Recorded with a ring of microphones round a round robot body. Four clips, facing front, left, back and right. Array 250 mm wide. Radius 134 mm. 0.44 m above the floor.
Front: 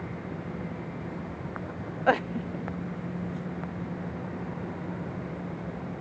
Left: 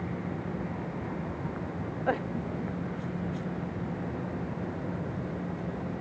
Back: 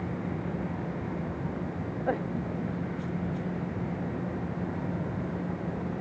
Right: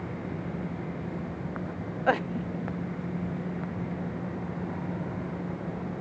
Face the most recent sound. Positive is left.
No sound to turn to.